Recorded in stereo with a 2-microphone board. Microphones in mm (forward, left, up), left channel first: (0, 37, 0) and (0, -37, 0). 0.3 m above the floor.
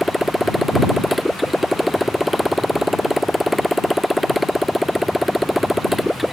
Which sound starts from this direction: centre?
A motorcycle, at 0.0 s.